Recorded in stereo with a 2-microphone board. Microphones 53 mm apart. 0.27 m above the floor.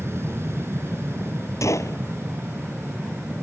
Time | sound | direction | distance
0.0 | an aircraft | 50° right (ahead or behind) | ?
1.6 | a gunshot | 75° left (ahead or behind) | ?